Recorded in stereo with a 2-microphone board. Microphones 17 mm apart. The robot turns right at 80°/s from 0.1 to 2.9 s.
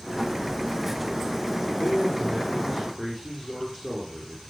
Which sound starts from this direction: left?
A man speaking, at 1.8 s.